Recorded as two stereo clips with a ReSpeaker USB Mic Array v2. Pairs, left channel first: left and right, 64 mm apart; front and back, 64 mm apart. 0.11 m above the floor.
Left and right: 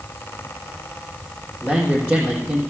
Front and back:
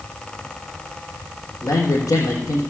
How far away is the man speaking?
About 4 m.